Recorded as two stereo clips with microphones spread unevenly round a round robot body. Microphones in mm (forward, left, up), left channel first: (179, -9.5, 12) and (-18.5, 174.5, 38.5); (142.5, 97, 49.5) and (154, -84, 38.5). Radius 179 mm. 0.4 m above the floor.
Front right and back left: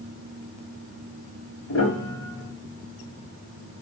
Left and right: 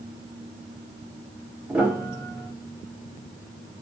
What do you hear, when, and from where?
1.7 s a piano: 5° right, 1.2 m